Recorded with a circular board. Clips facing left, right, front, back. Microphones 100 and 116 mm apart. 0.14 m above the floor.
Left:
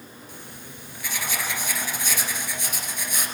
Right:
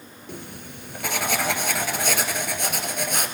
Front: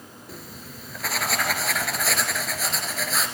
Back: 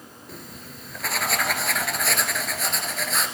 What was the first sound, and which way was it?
Writing, 90° right.